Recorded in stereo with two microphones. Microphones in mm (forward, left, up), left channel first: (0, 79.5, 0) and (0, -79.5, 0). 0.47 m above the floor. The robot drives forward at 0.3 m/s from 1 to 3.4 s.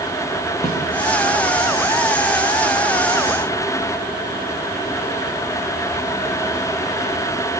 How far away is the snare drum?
About 7 m.